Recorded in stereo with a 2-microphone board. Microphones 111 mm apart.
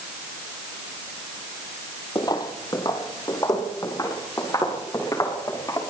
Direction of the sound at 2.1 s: 35° left (ahead or behind).